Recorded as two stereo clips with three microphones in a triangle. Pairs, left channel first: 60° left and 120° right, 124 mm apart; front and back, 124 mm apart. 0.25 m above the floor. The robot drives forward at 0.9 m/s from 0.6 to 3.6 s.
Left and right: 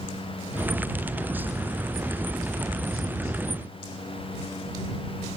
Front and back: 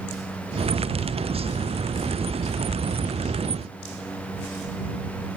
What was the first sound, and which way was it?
Only background noise.